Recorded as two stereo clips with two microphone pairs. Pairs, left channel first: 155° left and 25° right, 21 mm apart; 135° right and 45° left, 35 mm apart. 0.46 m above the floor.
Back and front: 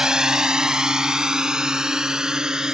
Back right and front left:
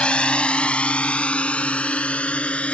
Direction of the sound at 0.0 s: 80° right.